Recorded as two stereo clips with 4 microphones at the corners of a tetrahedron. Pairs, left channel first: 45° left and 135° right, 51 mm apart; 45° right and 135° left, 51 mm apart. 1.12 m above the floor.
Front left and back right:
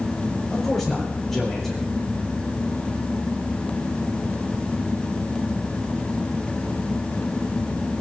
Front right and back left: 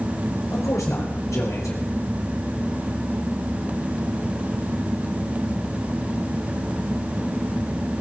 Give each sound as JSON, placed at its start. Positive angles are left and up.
{"t": 0.5, "sound": "a man speaking", "azimuth_deg": -45, "distance_m": 4.0}